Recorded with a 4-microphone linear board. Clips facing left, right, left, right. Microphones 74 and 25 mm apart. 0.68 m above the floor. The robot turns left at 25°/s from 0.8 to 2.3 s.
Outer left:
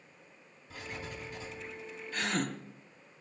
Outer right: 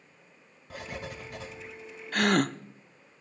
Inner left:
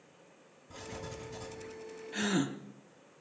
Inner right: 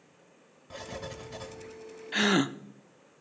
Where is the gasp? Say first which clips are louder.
Outer right 9 dB, inner right 7 dB; 70° right (ahead or behind), 0.6 m; by 2.5 s 65° right (ahead or behind), 0.6 m.